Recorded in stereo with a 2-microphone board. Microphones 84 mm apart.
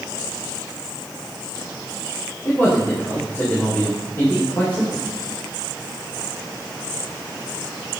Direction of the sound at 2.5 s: 30° left (ahead or behind).